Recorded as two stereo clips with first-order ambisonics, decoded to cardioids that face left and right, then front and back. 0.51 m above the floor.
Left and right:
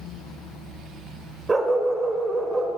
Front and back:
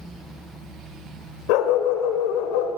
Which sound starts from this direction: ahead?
A dog barking, at 1.5 s.